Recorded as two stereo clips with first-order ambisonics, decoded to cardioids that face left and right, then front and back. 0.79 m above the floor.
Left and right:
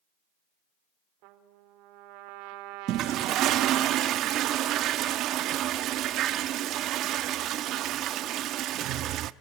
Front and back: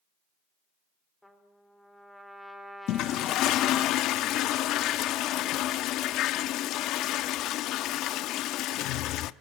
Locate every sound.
1.2 s a trumpet: 90° right, 2.5 m
2.9 s a toilet flushing: 45° right, 0.7 m